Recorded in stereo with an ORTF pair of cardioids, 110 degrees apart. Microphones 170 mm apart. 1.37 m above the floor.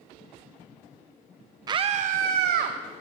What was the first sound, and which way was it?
A scream, 25° right.